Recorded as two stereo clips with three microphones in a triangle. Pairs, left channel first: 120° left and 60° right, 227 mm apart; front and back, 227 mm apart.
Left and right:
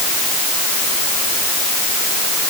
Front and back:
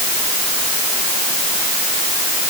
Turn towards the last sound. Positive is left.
No sound to turn to.